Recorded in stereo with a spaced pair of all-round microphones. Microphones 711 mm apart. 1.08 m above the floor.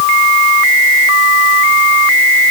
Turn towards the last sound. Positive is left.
No sound to turn to.